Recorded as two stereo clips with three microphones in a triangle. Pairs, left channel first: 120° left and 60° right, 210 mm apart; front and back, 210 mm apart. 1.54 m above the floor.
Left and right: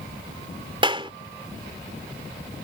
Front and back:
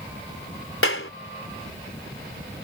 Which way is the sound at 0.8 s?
5° left.